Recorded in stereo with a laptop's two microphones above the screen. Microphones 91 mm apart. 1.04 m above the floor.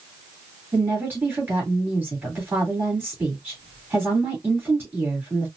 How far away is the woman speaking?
About 3 m.